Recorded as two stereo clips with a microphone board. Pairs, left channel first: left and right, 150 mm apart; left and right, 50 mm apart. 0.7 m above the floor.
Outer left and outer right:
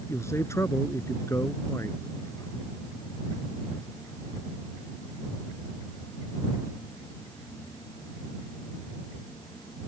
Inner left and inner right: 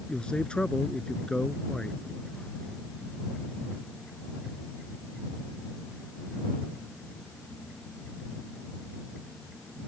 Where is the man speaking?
20° left (ahead or behind).